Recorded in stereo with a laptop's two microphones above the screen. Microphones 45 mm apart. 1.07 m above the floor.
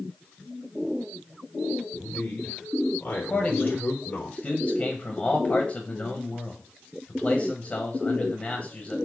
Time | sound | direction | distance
1.9 | a man speaking | 45° left (ahead or behind) | 3.5 m
3.3 | a man speaking | 25° left (ahead or behind) | 0.9 m